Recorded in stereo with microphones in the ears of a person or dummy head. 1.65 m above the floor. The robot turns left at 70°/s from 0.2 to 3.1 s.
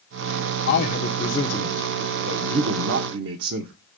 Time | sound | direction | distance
0.7 | a man speaking | 70° left | 0.9 m